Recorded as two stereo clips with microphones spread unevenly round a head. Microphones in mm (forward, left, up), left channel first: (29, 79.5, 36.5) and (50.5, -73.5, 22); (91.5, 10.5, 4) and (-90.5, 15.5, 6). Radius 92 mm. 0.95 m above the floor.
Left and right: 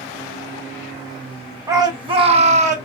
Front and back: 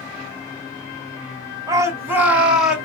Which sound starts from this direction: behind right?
A shout, at 1.7 s.